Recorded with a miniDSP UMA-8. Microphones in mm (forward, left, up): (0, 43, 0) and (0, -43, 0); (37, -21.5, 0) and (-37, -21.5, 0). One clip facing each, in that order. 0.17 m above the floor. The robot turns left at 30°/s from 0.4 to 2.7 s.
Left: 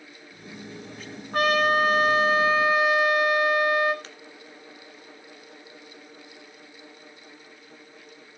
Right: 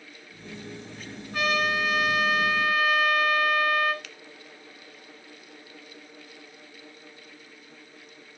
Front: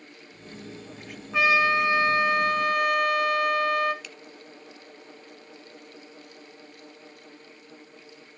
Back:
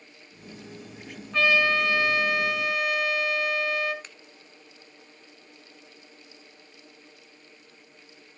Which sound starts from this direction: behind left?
A finger snap, at 4.0 s.